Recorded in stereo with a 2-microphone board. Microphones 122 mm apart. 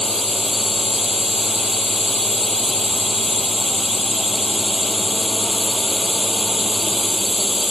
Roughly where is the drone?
Centre.